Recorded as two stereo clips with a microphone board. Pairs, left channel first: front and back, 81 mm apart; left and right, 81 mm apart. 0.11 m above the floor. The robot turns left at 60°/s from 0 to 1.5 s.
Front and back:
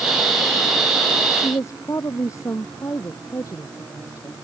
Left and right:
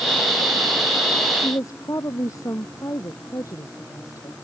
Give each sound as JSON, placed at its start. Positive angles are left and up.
{"t": 1.4, "sound": "a woman speaking", "azimuth_deg": 50}